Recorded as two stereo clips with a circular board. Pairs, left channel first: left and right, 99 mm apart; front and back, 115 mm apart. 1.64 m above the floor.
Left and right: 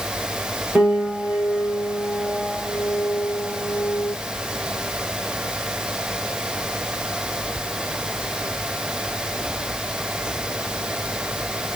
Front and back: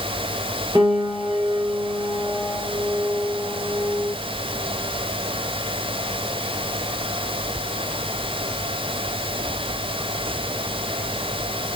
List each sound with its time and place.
0.8 s a piano: 155° right, 1.6 m